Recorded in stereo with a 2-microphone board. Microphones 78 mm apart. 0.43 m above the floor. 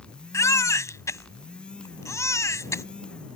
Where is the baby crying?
40° left (ahead or behind).